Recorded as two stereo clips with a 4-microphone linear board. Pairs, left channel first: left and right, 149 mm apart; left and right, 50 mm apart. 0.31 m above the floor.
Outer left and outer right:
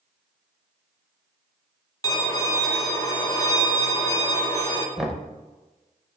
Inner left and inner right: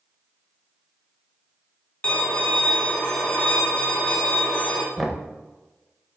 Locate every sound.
2.0 s a violin: 25° left (ahead or behind), 0.9 m
5.0 s knocking: 5° right (ahead or behind), 0.6 m